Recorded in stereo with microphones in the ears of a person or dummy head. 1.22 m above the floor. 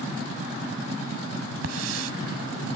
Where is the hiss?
75° right (ahead or behind).